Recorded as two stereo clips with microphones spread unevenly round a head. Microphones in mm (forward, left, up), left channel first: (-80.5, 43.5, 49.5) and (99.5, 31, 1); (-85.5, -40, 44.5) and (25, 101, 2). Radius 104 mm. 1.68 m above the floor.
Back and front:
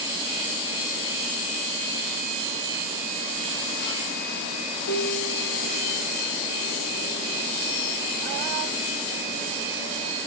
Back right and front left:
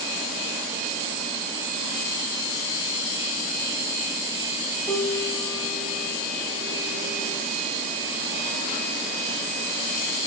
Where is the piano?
155° left, 3 m.